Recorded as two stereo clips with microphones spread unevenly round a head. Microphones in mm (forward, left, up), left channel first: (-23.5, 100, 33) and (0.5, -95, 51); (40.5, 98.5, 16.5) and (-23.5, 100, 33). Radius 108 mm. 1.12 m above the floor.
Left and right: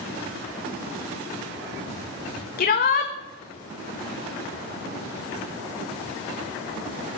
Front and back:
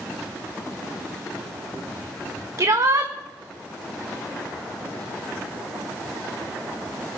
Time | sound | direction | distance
2.6 | a shout | 140° left | 1.4 m